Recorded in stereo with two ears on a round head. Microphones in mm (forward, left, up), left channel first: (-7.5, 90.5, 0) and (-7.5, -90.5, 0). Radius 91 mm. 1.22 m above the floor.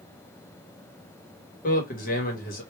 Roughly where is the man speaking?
Left.